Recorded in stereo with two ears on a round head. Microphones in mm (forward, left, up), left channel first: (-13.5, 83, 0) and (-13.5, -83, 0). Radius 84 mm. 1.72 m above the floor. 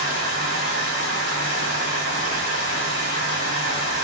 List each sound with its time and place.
0.0 s running water: 65° left (ahead or behind), 1.6 m